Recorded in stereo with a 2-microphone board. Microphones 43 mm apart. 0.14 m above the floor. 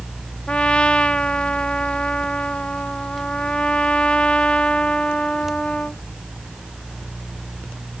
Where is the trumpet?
25° left (ahead or behind).